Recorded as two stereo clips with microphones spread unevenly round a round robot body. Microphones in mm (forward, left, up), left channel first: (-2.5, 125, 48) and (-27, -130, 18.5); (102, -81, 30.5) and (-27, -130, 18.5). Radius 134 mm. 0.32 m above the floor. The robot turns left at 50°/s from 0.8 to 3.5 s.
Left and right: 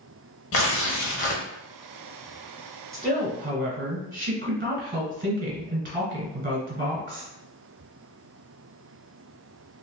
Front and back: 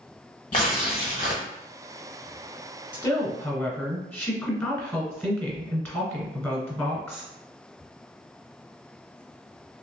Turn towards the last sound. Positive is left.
turn(degrees=-55)